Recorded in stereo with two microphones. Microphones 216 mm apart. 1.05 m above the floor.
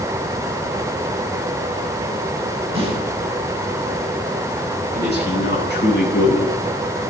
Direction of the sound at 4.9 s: 50° left (ahead or behind).